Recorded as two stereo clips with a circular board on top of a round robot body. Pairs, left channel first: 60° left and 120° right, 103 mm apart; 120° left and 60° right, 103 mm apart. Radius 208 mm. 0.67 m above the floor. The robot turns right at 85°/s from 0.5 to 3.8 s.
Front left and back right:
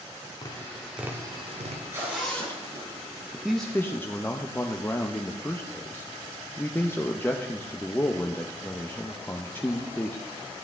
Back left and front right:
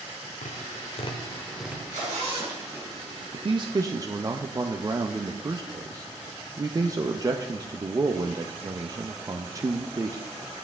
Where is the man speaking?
45° right, 0.9 m; by 10.2 s 10° right, 0.9 m.